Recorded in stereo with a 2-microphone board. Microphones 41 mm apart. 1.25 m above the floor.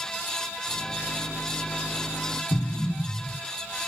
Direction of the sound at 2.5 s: 85° left.